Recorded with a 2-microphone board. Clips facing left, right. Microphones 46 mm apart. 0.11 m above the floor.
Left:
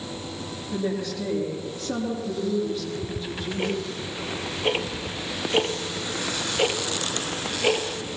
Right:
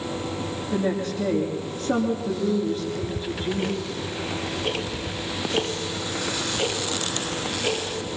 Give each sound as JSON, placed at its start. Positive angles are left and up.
{"t": 0.7, "sound": "a woman speaking", "side_deg": -40, "distance_m": 5.0}
{"t": 2.7, "sound": "ticking", "side_deg": 25, "distance_m": 1.5}